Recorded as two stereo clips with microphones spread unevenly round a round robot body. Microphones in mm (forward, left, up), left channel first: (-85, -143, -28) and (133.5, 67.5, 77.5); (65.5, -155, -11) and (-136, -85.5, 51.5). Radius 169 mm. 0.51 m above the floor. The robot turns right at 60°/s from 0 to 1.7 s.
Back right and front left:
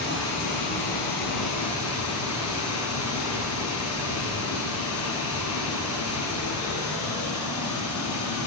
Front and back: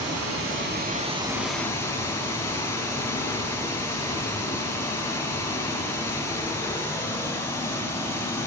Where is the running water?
160° left, 4 m; by 8.5 s 95° right, 4 m.